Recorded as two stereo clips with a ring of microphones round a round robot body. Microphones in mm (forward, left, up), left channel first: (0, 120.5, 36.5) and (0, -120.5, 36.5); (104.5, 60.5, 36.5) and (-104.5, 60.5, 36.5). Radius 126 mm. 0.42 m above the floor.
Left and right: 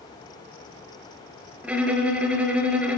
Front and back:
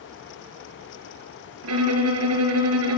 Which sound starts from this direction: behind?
A violin, at 1.6 s.